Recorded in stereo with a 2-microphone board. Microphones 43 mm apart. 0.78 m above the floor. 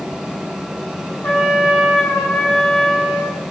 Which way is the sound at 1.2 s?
35° left (ahead or behind).